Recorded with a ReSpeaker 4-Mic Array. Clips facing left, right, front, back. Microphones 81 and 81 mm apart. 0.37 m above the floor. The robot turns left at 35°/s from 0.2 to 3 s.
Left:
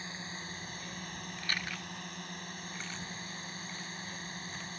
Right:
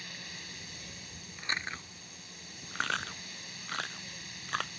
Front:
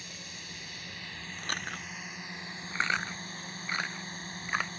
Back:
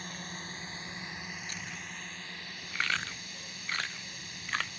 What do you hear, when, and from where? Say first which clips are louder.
0.0 s a drone: left 4 dB, back 5 dB; 145° left; by 4.8 s 45° left
1.4 s chewing: right 2 dB, front 5 dB; 15° right; by 4.7 s 75° right